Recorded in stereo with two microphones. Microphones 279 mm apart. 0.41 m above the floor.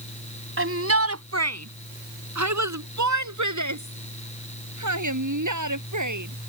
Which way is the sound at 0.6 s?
45° right (ahead or behind).